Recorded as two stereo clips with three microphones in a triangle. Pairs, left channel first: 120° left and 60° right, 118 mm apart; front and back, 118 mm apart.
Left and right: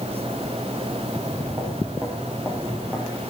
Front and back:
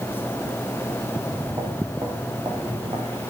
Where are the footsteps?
115° right, 5.5 m; by 3.2 s 140° right, 6 m.